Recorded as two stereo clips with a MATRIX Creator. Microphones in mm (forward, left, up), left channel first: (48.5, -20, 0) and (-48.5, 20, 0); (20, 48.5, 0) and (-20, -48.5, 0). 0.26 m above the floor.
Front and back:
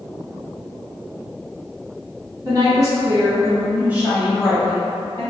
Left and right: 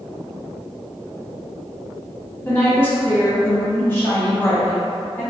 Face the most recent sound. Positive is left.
turn(degrees=10)